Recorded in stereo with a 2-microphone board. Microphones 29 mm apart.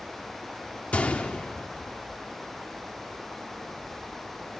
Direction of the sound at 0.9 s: 70° left (ahead or behind).